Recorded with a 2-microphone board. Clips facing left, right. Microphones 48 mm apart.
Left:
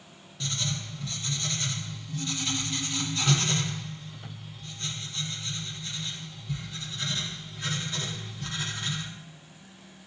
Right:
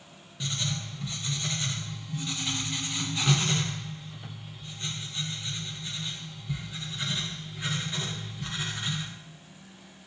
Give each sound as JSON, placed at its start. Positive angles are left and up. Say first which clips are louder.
{"t": 0.4, "sound": "writing", "louder": "even", "side_deg": -15, "distance_m": 1.2}